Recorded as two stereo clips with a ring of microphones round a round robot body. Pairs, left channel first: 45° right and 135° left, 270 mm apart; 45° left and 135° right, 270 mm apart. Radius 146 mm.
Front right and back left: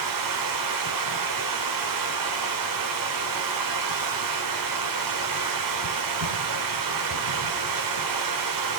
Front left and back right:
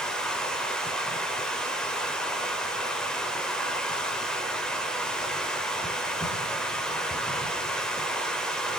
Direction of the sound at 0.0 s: 130° left.